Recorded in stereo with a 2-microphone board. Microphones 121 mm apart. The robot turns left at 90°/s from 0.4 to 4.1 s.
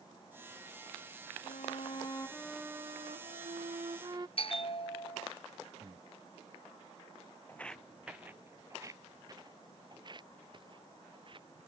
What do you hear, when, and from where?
1.4 s a violin: 95° left; by 4.3 s 145° right
4.4 s a bell: 55° left (ahead or behind)
5.8 s breathing: 30° right (ahead or behind)
7.5 s footsteps: 20° left (ahead or behind); by 11.7 s 45° right (ahead or behind)